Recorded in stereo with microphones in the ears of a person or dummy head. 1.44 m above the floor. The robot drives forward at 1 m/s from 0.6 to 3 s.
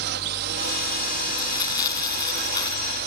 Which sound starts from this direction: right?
A drone, at 0.0 s.